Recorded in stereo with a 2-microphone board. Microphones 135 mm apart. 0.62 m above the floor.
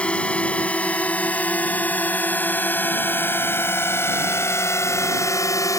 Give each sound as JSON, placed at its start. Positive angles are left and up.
{"t": 0.0, "sound": "a drone", "side_deg": 10}